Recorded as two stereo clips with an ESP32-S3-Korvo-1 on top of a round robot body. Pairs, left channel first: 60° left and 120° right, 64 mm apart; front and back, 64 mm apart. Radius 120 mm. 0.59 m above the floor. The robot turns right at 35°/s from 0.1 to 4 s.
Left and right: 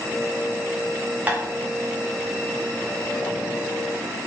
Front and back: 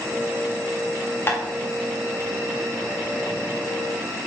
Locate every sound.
1.3 s tapping: 55° right, 1.6 m; by 1.4 s 50° right, 1.6 m